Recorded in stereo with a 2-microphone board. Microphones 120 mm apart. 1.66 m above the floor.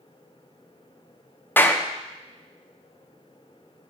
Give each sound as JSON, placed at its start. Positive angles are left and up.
{"t": 1.6, "sound": "a clap", "side_deg": 15, "distance_m": 0.6}